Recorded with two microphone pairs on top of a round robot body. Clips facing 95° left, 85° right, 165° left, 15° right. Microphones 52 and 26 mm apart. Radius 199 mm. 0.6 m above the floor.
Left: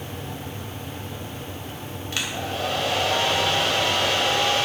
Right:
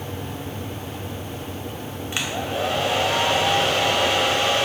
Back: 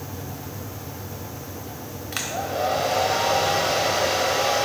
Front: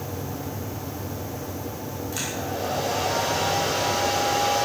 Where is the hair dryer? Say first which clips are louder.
Right 2 dB, back 4 dB; 155° right, 3 m.